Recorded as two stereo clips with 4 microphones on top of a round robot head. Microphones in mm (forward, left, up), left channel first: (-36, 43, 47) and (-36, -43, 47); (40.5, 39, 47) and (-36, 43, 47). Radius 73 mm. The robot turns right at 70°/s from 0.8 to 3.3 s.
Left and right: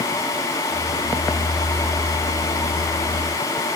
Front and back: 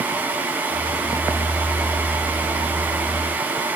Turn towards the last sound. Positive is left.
No sound to turn to.